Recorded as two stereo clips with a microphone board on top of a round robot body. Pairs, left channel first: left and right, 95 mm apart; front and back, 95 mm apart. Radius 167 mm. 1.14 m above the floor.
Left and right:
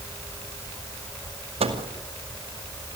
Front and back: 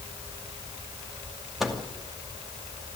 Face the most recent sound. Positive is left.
turn(degrees=-90)